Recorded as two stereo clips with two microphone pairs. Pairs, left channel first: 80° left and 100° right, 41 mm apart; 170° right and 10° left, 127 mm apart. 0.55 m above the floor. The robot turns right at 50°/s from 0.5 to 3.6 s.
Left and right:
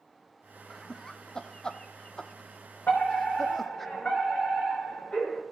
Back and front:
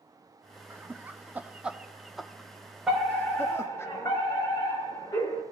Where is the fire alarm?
95° left, 4 m; by 5.4 s 130° left, 4 m.